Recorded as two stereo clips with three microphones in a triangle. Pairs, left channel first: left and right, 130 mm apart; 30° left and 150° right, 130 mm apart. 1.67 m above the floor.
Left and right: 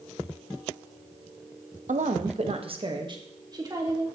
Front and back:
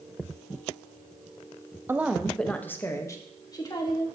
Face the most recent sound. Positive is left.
turn(degrees=-25)